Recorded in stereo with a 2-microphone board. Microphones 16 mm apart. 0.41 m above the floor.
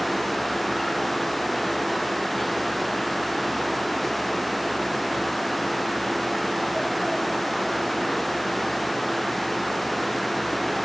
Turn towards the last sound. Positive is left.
No sound to turn to.